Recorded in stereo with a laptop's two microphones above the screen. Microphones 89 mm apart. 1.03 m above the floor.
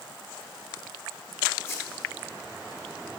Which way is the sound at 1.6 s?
30° left (ahead or behind).